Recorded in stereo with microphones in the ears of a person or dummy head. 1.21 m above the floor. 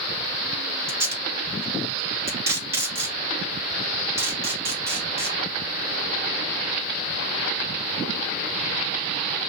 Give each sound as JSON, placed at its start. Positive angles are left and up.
{"t": 0.9, "sound": "tape being pulled", "side_deg": -25, "distance_m": 1.1}